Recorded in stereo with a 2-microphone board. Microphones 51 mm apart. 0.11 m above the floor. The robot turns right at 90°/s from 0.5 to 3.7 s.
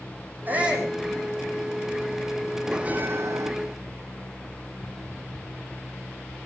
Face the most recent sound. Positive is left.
turn(degrees=-80)